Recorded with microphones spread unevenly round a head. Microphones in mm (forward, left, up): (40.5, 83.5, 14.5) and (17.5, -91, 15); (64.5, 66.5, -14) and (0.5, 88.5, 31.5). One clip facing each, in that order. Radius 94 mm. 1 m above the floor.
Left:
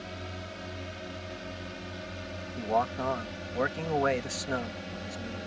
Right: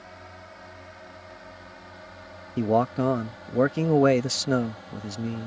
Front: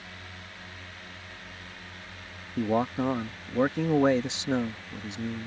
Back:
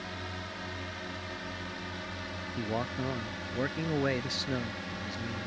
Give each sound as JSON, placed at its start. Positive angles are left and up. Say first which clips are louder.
{"t": 0.0, "sound": "a drone", "louder": "left 5 dB, back 6 dB", "azimuth_deg": 135}
{"t": 2.6, "sound": "a man speaking", "louder": "right 7 dB, front 8 dB", "azimuth_deg": -60}